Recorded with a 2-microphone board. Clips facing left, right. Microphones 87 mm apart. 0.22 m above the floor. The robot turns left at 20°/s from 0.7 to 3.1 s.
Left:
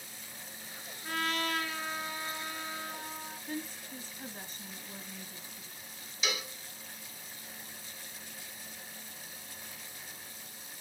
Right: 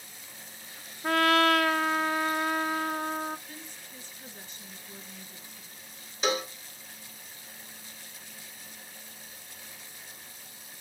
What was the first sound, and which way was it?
A trumpet, 70° right.